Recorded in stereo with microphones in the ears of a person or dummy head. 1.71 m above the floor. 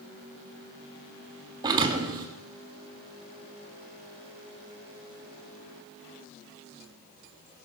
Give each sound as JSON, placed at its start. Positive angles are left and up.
{"t": 1.6, "sound": "a thud", "side_deg": -20, "distance_m": 1.9}